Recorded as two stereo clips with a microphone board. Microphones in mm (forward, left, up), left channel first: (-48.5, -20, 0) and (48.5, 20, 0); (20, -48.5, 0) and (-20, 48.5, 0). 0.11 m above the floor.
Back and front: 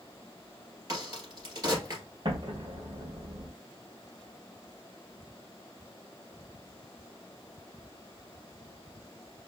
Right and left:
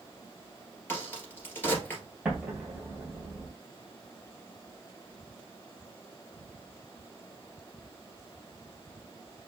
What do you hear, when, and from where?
0.9 s a crack: 5° right, 2 m
2.2 s an explosion: 30° left, 2 m